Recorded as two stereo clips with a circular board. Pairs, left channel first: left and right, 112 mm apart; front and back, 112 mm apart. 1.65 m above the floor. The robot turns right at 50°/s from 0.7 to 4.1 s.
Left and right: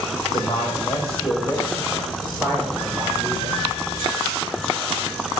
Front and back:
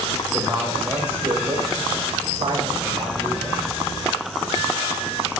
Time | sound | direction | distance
0.3 | a man speaking | 90° left | 7 m